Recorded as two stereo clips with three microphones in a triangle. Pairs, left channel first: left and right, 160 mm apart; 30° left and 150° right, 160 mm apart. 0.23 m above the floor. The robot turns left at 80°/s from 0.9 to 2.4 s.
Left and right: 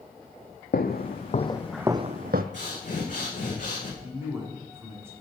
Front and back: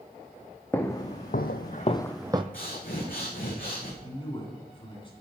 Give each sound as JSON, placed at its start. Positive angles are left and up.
{"t": 0.7, "sound": "footsteps", "azimuth_deg": 105, "distance_m": 0.9}
{"t": 2.5, "sound": "breathing", "azimuth_deg": 55, "distance_m": 2.5}
{"t": 4.0, "sound": "a man speaking", "azimuth_deg": -20, "distance_m": 2.5}